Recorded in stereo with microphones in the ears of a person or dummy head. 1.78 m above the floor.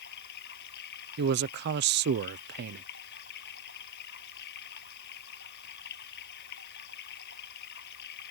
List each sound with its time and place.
0.0 s running water: 60° left (ahead or behind)
1.2 s a man speaking: 55° right (ahead or behind)